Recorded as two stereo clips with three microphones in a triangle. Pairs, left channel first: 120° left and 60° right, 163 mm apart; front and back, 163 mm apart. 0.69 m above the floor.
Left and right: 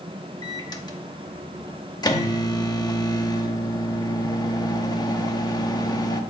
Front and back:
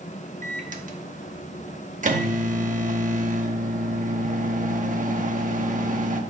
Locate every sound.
0.4 s a microwave: straight behind, 0.8 m